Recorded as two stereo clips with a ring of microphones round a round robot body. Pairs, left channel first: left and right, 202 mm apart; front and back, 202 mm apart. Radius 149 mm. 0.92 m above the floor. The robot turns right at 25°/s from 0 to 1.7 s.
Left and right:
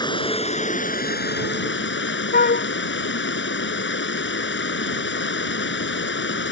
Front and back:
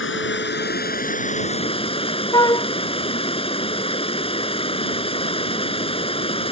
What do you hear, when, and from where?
0.0 s running water: 20° left; by 6.5 s 65° left
2.3 s a flute: 65° left